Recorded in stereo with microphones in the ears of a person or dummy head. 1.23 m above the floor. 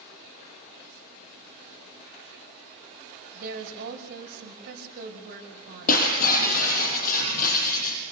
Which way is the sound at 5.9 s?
50° left (ahead or behind).